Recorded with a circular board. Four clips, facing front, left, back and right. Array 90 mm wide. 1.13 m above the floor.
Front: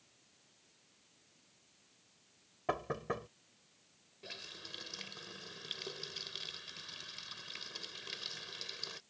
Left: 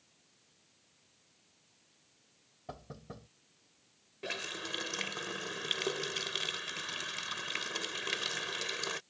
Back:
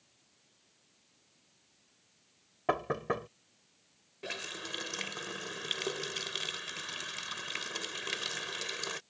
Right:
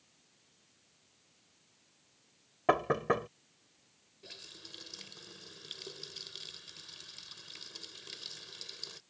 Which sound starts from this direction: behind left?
A running tap, at 4.2 s.